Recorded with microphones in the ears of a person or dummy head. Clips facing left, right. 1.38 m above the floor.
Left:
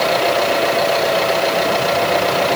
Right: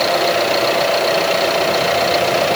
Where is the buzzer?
No buzzer in this recording.